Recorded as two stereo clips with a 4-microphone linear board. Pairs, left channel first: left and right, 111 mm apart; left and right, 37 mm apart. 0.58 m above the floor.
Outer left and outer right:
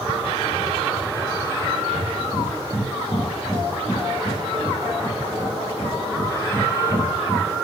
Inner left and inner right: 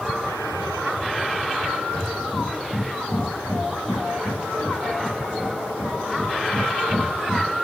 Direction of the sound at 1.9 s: 20° left (ahead or behind).